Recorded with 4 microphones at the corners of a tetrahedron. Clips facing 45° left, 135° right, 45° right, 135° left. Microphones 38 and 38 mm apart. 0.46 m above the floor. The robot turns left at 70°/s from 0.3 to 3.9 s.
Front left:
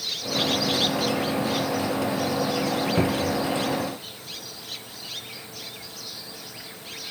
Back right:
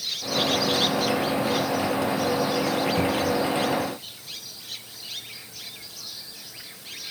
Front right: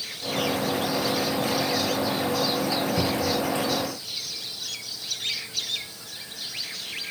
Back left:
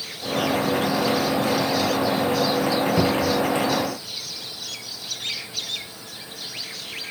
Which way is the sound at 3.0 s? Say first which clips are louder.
Back right 1 dB, back left 4 dB; 95° left.